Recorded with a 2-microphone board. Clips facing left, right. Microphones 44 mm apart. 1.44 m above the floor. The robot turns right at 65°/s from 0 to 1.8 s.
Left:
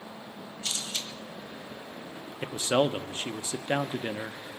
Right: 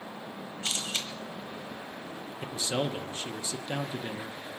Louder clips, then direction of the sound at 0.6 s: Right 2 dB; 30° right (ahead or behind).